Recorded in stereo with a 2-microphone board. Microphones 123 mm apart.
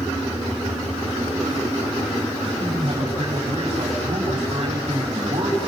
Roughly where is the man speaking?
Right.